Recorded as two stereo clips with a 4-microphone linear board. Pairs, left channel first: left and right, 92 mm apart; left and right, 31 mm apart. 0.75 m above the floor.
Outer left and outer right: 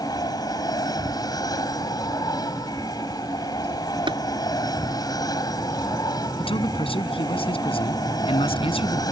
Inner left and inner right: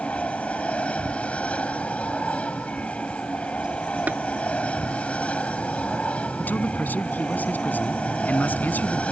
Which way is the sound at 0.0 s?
45° left (ahead or behind).